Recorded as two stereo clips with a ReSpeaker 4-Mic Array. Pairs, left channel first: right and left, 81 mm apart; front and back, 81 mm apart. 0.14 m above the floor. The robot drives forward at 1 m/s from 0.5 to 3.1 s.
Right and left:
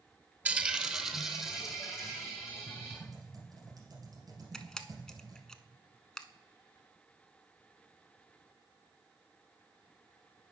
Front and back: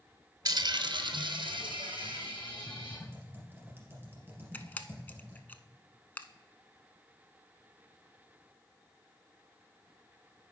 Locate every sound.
0.5 s a dropped coin: 160° left, 0.6 m; by 3.0 s 175° left, 3 m
2.7 s typing on a keyboard: 110° left, 2.5 m; by 5.4 s 120° left, 2.5 m
4.5 s a camera shutter: 25° right, 0.5 m